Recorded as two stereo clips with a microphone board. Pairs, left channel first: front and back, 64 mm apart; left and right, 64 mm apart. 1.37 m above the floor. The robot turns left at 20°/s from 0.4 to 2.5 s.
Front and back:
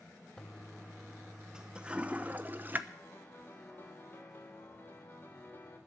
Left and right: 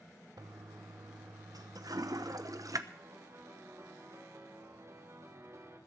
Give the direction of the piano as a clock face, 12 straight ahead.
2 o'clock.